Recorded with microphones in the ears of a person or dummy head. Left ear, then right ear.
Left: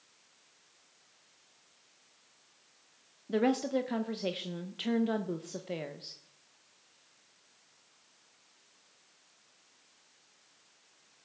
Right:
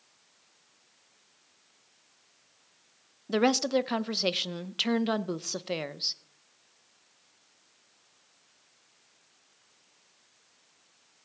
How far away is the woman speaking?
About 0.6 m.